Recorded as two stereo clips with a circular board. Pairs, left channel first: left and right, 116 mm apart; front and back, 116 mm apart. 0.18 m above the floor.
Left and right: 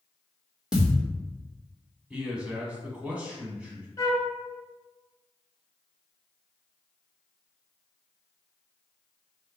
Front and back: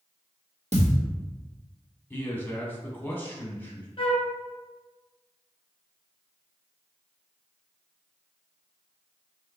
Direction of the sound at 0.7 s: 175° right.